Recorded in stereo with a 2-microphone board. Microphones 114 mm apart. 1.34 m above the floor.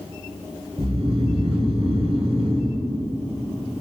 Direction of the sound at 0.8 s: 65° right (ahead or behind).